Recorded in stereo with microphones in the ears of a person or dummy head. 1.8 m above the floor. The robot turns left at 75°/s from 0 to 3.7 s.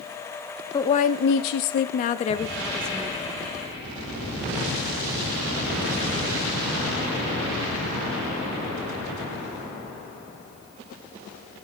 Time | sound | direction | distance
0.7 | a woman speaking | 160° left | 0.7 m